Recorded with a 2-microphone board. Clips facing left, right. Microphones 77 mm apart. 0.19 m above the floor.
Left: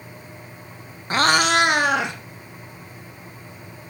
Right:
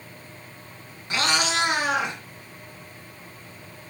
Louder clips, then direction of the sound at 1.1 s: Left 7 dB; 40° left (ahead or behind).